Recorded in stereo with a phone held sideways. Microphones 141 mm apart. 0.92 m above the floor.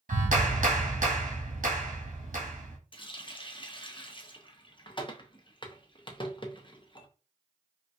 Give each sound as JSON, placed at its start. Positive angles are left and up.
{"t": 0.1, "sound": "a clap", "side_deg": -70, "distance_m": 1.3}
{"t": 2.9, "sound": "a running tap", "side_deg": 35, "distance_m": 0.5}